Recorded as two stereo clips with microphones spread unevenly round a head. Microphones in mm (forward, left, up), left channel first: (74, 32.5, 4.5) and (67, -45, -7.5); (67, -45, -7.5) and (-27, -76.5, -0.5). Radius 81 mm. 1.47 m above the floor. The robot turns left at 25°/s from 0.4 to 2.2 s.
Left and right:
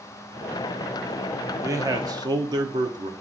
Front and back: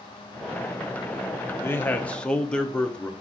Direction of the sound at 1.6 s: 50° right.